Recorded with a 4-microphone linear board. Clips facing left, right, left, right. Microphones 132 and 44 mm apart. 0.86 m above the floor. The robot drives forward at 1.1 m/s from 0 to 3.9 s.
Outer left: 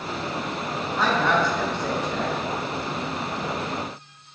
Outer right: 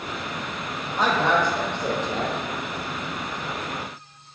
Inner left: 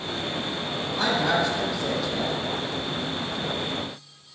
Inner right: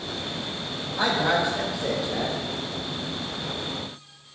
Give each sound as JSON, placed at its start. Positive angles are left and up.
{"t": 1.0, "sound": "a woman speaking", "side_deg": -20, "distance_m": 3.5}